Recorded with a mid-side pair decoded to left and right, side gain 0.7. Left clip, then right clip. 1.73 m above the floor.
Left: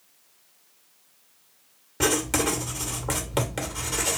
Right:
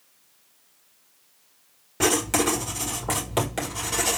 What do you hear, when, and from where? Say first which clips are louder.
2.0 s writing: right 2 dB; straight ahead, 1.8 m